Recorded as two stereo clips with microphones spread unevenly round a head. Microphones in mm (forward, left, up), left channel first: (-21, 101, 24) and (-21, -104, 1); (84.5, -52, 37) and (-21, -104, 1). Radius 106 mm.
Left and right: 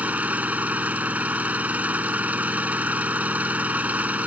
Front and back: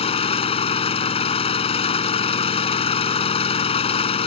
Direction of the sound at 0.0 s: 5° right.